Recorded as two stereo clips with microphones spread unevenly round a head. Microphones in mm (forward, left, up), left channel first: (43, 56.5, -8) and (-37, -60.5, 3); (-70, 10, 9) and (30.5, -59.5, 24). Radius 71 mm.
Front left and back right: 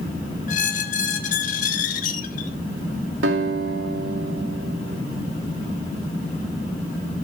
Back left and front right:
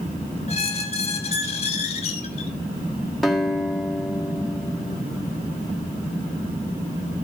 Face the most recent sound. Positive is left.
turn(degrees=-125)